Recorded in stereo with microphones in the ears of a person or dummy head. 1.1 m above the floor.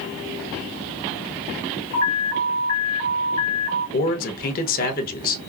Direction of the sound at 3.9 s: 50° left (ahead or behind).